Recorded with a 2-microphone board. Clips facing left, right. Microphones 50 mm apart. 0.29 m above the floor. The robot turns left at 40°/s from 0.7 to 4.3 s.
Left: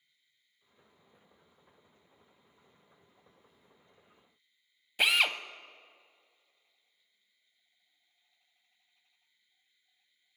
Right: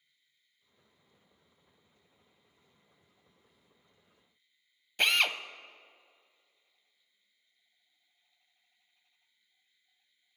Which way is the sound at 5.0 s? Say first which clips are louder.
Left 1 dB; 5° left (ahead or behind).